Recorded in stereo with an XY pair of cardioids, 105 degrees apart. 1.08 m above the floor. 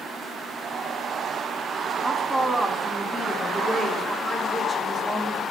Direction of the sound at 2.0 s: 10° left.